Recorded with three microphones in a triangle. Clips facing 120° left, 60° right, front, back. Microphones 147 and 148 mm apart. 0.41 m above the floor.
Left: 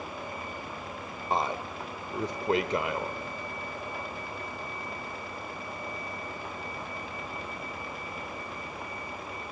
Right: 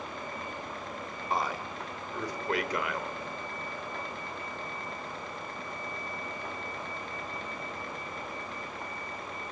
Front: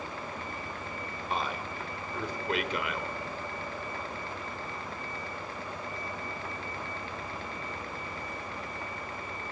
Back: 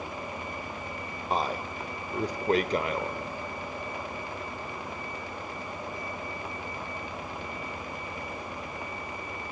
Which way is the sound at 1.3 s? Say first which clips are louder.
Left 3 dB, back 5 dB; 170° left.